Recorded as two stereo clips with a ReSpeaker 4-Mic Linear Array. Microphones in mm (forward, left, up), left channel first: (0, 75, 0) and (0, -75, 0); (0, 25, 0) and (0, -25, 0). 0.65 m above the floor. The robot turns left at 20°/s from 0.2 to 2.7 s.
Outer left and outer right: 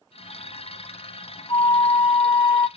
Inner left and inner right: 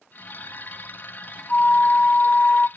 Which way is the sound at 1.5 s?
25° left (ahead or behind).